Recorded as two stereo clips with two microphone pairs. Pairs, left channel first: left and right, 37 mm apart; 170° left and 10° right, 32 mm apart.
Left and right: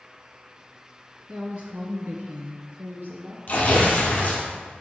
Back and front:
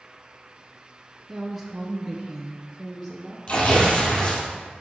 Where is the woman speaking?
90° right, 1.1 m; by 3.4 s 110° right, 3 m.